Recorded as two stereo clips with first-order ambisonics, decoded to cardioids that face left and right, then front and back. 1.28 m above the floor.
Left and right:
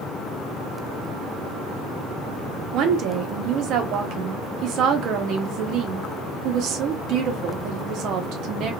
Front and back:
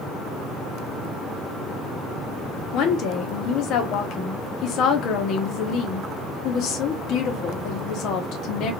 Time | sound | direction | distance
2.7 | a woman speaking | 45° right | 0.8 m